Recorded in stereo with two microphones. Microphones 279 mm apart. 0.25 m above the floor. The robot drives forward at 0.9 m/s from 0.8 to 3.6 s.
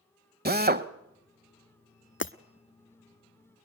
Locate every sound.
0.5 s a drill: 35° right (ahead or behind), 0.8 m
2.2 s breaking glass: 45° left (ahead or behind), 0.6 m; by 2.3 s 55° left (ahead or behind), 0.5 m